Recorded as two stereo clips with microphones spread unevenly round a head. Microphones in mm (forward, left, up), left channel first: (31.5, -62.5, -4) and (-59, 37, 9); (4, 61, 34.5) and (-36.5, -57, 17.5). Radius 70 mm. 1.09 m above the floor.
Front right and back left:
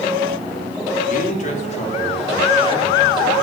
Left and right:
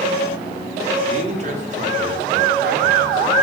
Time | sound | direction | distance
1.1 | a man speaking | 70° right | 3 m